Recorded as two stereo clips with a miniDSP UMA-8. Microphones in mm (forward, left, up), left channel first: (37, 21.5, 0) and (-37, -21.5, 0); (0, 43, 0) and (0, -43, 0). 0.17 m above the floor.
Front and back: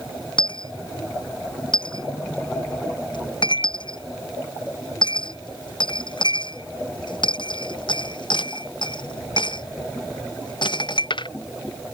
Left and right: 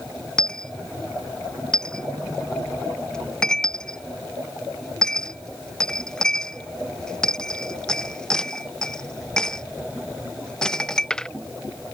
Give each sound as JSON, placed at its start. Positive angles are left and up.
{"t": 0.4, "sound": "a dropped coin", "azimuth_deg": 10}